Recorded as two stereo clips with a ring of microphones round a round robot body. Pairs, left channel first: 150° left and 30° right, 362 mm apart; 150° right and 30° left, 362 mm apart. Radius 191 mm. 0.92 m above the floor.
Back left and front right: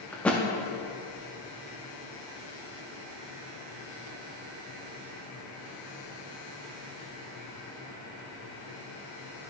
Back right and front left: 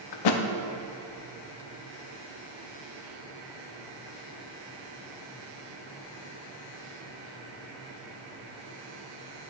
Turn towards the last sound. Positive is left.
turn(degrees=-125)